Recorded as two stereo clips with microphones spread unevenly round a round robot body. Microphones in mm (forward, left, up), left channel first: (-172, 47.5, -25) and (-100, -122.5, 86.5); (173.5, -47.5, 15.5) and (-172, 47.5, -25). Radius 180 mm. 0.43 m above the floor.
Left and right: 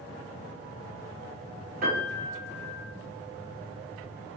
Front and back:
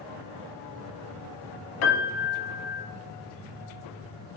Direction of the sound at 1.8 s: 35° right.